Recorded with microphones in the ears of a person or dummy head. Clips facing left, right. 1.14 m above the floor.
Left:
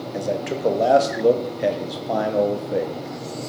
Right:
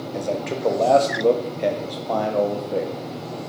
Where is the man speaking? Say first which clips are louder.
Left 1 dB; 5° left (ahead or behind), 0.7 m.